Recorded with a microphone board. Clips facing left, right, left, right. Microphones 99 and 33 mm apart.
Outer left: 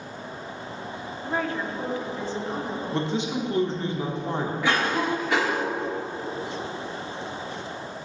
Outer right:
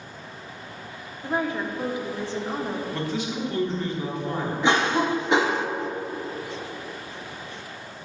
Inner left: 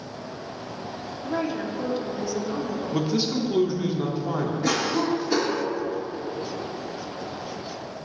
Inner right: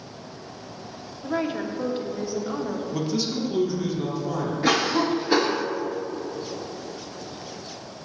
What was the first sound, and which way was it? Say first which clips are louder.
A woman speaking: outer right 2 dB, inner right 1 dB; 20° right (ahead or behind).